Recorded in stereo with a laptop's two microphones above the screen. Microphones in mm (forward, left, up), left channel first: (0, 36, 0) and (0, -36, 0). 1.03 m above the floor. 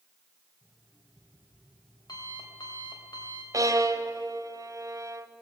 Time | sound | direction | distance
0.6 | an alarm clock | 80° left | 2.5 m
3.5 | a violin | 50° right (ahead or behind) | 1.2 m